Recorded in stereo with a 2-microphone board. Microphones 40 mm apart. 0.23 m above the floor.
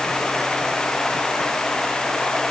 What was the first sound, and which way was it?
Only background noise.